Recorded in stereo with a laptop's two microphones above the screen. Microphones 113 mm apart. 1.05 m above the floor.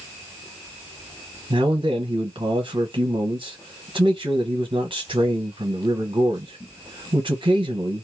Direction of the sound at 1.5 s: 45° right (ahead or behind).